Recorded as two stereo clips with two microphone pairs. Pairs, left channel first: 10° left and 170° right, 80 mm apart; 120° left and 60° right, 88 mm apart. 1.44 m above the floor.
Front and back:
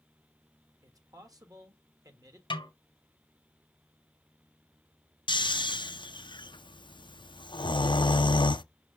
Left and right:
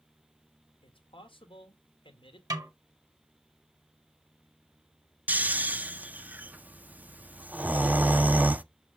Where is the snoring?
10° left, 0.5 m.